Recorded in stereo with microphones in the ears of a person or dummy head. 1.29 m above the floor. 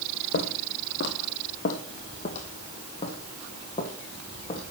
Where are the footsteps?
50° left (ahead or behind), 2 m; by 4.6 s 30° left (ahead or behind), 4.5 m.